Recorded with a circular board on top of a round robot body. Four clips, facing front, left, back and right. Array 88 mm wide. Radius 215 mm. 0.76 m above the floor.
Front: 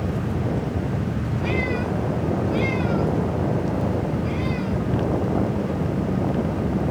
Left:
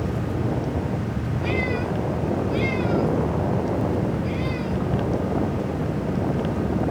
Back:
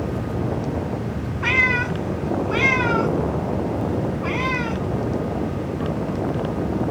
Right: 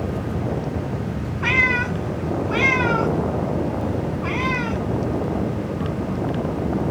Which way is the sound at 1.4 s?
135° right.